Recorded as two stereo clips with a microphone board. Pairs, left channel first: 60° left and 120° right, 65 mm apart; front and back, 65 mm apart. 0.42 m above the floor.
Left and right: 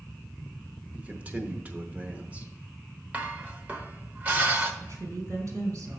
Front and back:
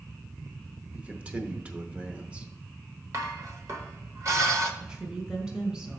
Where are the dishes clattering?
Straight behind, 0.9 m.